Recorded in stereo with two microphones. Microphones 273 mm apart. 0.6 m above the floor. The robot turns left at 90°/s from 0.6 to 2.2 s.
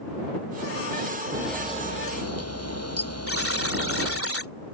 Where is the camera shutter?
165° right; by 4.2 s 115° left.